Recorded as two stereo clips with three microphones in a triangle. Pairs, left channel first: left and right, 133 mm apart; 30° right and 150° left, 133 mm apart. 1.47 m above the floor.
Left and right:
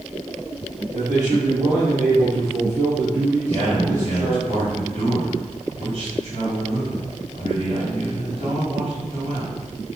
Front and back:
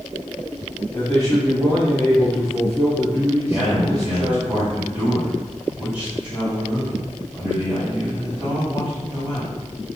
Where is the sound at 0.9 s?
105° right, 1.1 m.